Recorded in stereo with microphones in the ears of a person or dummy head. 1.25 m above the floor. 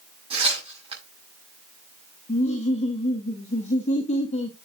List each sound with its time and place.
0.3 s tearing paper: 35° right (ahead or behind), 6 m
2.3 s laughter: 35° left (ahead or behind), 1.4 m